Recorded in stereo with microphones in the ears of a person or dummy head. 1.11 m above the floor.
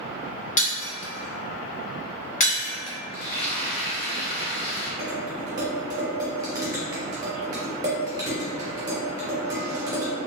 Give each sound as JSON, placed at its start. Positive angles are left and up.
{"t": 0.6, "sound": "breaking glass", "side_deg": 40, "distance_m": 0.9}
{"t": 3.1, "sound": "frying", "side_deg": 50, "distance_m": 1.3}
{"t": 5.0, "sound": "dishes clattering", "side_deg": -20, "distance_m": 0.7}